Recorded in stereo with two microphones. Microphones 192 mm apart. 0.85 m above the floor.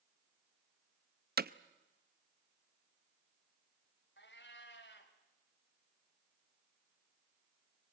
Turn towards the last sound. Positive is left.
turn(degrees=70)  # may be behind; listen again after turning